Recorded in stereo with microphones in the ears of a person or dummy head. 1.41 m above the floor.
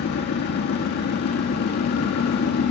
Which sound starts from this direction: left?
An engine running, at 0.0 s.